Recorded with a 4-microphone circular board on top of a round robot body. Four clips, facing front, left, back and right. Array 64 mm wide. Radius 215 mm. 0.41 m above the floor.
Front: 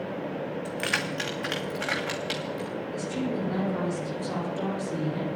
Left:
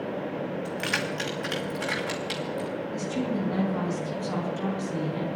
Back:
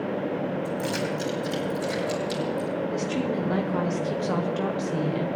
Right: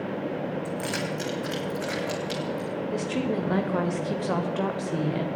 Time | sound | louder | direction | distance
0.7 | keys jangling | even, back 2 dB | 25° left | 2.0 m
2.9 | a woman speaking | right 2 dB, back 3 dB | 115° right | 2 m